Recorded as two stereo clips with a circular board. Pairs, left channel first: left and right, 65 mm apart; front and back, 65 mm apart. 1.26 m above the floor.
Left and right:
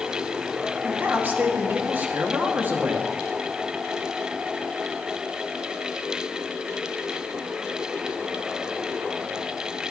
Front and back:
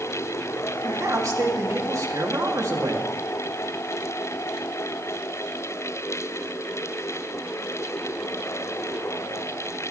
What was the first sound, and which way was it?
A man speaking, 150° right.